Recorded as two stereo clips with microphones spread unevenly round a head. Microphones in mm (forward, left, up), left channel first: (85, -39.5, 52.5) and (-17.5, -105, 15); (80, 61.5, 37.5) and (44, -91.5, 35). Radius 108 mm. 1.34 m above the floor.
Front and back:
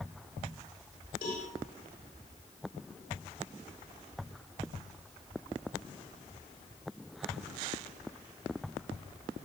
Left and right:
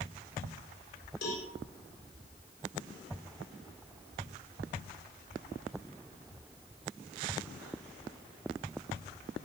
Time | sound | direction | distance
1.2 | a cowbell | 95° left | 4 m